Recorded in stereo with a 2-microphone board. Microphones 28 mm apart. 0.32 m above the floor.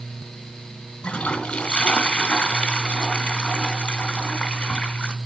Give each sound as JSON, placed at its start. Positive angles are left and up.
{"t": 1.0, "sound": "a toilet flushing", "side_deg": 45, "distance_m": 1.2}